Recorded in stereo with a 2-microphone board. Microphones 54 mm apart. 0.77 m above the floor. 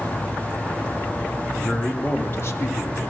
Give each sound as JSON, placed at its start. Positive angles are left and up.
{"t": 1.5, "sound": "a man speaking", "side_deg": 25, "distance_m": 2.0}